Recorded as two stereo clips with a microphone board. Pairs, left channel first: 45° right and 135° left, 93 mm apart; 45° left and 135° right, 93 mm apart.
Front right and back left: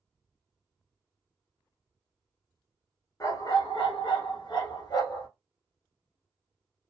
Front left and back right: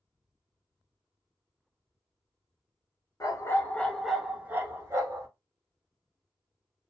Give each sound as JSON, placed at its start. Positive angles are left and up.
{"t": 3.2, "sound": "a dog barking", "azimuth_deg": 0, "distance_m": 0.7}